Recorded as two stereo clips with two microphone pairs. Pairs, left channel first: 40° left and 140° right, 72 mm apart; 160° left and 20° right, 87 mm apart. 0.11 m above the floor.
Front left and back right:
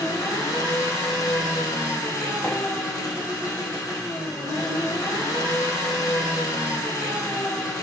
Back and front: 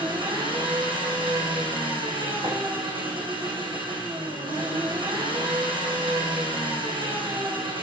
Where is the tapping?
Straight ahead, 5.5 m.